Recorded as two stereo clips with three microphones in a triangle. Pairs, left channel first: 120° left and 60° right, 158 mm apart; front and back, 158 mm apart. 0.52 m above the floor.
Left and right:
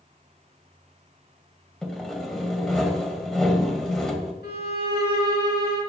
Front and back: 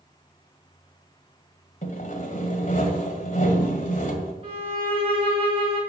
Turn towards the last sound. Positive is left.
turn(degrees=125)